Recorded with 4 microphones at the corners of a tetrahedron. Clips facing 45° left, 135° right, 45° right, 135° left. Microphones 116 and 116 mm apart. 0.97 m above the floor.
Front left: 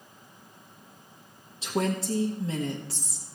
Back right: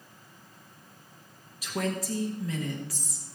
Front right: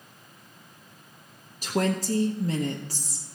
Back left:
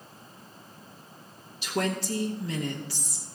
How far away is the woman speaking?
About 1.1 m.